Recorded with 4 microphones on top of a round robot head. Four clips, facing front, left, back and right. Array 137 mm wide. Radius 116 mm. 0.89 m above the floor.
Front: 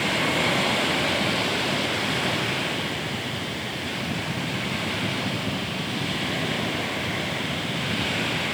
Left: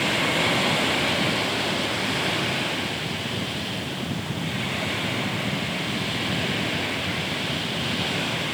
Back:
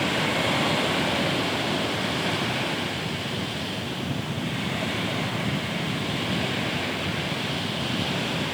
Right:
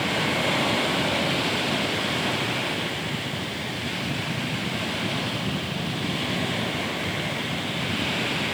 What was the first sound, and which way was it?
Only background noise.